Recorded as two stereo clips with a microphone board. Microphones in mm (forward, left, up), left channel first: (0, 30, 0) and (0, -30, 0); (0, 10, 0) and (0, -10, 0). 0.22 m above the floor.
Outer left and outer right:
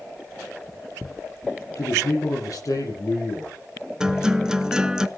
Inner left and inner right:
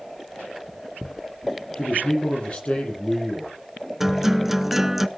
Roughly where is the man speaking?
Left.